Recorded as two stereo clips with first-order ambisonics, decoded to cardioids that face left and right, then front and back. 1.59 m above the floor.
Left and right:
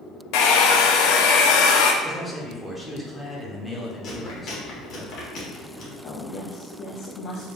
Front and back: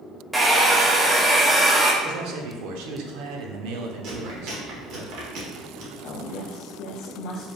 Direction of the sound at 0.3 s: 100° left.